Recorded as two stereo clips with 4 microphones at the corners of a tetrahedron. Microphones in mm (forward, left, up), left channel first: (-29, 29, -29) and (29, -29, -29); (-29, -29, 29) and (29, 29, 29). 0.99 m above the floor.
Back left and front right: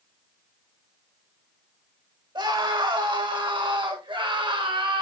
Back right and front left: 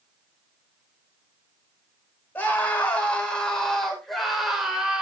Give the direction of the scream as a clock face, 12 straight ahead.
2 o'clock.